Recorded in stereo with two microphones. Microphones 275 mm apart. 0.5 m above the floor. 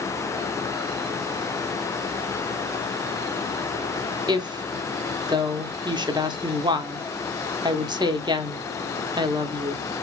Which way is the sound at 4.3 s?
15° right (ahead or behind).